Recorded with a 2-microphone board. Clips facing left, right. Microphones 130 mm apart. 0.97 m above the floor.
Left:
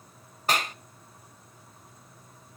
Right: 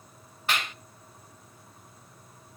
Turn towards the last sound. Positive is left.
turn(degrees=40)  # may be behind; listen again after turning